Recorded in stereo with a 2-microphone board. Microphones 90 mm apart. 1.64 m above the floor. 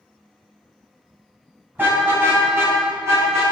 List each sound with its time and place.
1.8 s a car horn: 20° right (ahead or behind), 6 m; by 3.4 s 30° right (ahead or behind), 8 m